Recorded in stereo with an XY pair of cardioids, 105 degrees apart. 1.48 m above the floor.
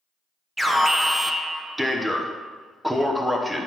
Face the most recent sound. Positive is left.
turn(degrees=-10)